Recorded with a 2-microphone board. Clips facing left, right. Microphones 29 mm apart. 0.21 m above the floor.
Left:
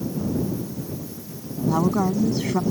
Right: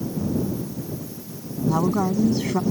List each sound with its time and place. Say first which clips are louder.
1.7 s a woman speaking: even; 5° left (ahead or behind)